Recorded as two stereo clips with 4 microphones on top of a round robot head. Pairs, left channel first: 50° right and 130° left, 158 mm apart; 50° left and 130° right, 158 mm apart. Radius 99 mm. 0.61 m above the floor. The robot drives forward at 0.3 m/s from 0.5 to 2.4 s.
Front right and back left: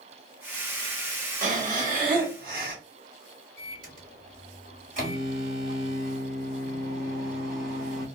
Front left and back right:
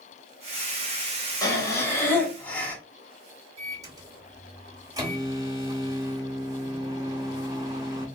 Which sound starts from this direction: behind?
A microwave, at 3.6 s.